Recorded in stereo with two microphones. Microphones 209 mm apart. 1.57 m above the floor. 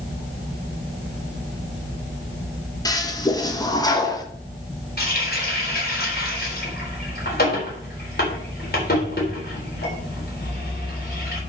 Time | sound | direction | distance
2.9 | a toilet flushing | 20° left (ahead or behind) | 1.4 m
5.0 | a running tap | 50° left (ahead or behind) | 4 m